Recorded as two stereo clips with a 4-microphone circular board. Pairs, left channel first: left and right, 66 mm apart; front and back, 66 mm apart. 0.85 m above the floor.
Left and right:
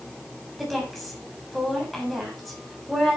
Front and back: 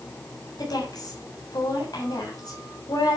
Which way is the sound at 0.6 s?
Straight ahead.